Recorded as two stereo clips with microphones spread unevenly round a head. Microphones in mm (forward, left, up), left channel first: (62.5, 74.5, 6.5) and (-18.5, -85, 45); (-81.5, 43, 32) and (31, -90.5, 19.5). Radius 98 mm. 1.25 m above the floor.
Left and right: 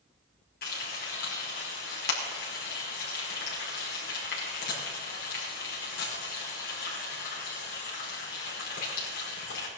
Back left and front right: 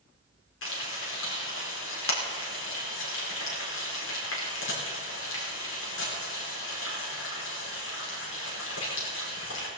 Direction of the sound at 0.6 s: 105° left.